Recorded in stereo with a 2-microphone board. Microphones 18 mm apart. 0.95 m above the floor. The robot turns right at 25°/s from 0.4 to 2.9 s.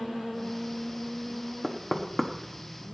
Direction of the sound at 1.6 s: 5° right (ahead or behind).